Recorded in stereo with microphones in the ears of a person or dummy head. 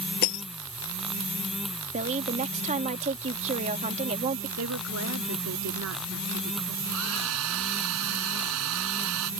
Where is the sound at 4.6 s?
90° right.